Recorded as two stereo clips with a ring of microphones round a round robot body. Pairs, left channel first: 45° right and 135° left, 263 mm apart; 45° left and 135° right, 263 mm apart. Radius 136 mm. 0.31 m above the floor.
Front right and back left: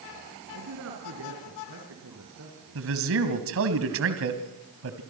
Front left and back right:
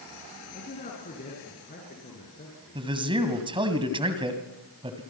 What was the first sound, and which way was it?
A man speaking, 105° left.